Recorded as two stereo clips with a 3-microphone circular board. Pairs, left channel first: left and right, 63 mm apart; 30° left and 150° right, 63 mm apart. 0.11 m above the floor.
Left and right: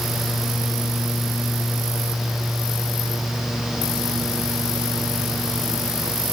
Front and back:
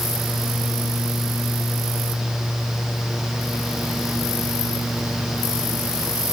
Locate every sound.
Only background noise.